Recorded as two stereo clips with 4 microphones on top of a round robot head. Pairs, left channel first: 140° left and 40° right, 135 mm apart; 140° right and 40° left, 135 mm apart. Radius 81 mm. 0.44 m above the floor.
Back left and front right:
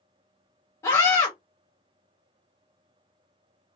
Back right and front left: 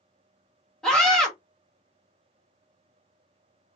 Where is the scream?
140° left, 1.3 m.